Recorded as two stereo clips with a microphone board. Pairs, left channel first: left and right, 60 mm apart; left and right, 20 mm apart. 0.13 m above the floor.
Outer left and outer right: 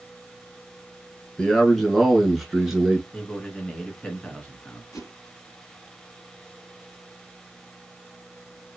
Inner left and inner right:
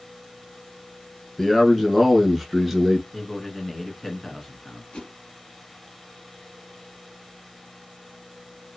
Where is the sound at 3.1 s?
20° left (ahead or behind), 1.8 m.